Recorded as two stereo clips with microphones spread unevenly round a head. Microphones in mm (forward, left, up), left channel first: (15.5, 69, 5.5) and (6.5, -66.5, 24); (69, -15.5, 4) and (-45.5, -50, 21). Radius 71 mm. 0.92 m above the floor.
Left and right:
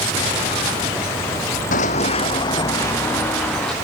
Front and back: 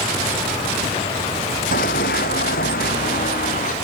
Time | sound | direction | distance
1.7 | running footsteps | 55° left | 2 m